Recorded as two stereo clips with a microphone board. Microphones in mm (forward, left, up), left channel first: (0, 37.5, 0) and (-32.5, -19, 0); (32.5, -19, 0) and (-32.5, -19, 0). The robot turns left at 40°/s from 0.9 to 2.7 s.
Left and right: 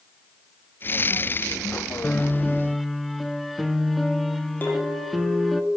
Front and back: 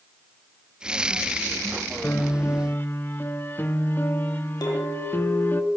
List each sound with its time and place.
2.0 s a piano: 5° right, 0.8 m; by 5.6 s 30° right, 0.8 m
4.6 s a clink: straight ahead, 3.5 m